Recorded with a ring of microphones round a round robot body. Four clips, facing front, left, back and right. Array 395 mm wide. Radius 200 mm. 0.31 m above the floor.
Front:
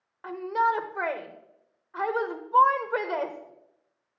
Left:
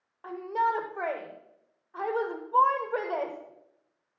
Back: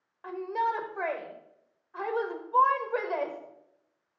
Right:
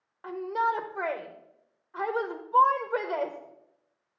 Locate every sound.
0.2 s a shout: 25° right, 0.8 m